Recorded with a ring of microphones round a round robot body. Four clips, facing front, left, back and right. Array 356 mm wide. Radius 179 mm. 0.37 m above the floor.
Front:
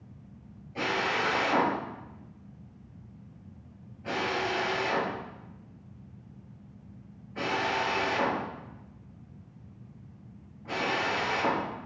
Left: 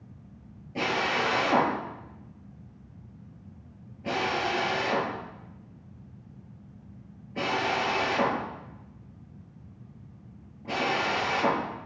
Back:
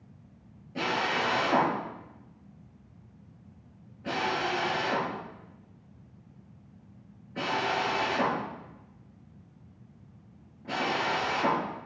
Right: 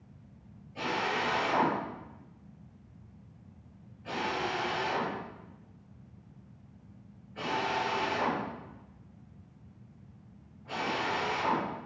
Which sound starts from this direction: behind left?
A drill, at 0.8 s.